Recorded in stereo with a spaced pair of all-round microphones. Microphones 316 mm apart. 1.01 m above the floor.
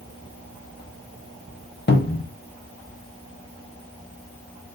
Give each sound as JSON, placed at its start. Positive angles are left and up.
{"t": 1.9, "sound": "a cupboard door", "side_deg": 35, "distance_m": 0.6}